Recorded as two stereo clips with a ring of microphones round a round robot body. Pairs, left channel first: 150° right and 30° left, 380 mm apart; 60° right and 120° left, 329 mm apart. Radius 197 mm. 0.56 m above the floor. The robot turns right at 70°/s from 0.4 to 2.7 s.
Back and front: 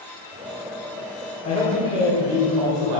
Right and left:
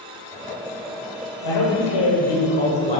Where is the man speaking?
80° right, 2.0 m; by 3.0 s 10° left, 2.0 m.